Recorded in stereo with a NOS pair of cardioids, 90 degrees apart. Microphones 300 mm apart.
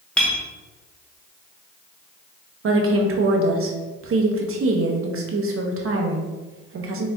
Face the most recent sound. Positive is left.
turn(degrees=-50)